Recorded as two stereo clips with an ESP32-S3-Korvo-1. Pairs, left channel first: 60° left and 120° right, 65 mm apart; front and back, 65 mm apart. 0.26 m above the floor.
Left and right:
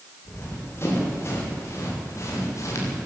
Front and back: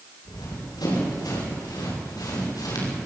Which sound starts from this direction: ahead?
Running footsteps, at 0.2 s.